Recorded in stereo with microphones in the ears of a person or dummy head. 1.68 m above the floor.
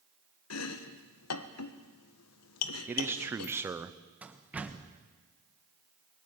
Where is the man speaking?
15° right (ahead or behind), 1.1 m.